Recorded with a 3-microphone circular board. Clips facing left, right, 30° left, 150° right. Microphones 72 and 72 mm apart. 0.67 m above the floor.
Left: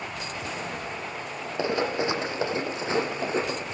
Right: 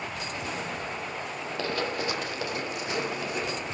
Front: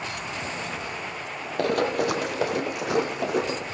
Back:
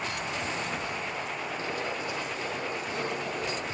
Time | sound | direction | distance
1.6 | running footsteps | 20° left | 1.7 m